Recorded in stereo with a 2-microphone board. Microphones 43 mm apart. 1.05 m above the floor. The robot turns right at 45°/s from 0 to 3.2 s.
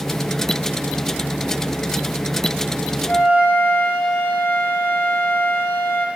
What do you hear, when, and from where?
3.1 s a flute: 60° left (ahead or behind), 7 m; by 6.1 s 70° left (ahead or behind), 7 m